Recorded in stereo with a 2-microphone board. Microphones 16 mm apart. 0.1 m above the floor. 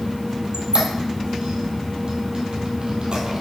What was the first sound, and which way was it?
A squeak, 65° right (ahead or behind).